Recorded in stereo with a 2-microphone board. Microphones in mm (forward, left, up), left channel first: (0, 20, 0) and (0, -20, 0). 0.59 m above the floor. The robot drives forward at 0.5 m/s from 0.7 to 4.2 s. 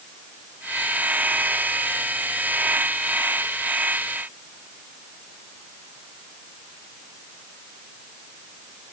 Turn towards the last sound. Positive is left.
No sound to turn to.